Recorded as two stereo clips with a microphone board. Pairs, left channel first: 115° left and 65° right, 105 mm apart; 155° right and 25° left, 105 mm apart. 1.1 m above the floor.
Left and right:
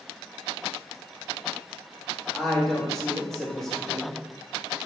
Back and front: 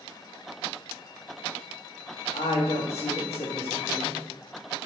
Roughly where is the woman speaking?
Behind.